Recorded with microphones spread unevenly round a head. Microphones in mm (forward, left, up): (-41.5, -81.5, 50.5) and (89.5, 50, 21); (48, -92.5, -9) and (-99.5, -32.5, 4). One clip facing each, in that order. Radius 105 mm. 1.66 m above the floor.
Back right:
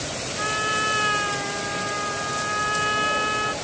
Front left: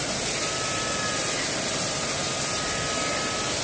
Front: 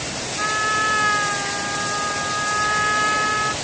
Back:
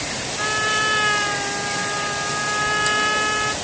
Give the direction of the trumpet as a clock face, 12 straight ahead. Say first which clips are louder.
Back right 2 dB, even; 5 o'clock.